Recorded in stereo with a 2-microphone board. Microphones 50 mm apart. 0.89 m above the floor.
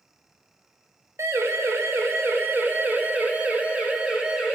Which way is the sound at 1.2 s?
80° right.